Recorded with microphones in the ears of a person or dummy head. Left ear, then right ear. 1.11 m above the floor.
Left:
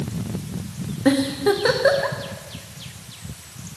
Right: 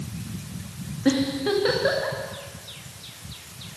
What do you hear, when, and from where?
1.1 s a giggle: 30° left (ahead or behind), 1.1 m